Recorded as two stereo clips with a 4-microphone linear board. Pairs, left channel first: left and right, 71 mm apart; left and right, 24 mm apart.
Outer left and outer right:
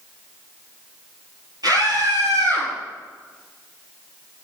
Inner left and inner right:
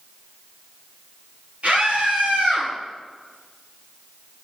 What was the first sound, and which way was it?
A scream, 60° right (ahead or behind).